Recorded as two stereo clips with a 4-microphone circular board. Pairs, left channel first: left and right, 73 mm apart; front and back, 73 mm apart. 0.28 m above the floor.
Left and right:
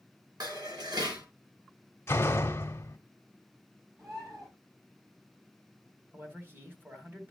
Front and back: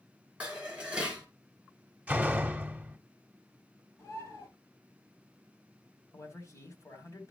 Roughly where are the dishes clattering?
Right.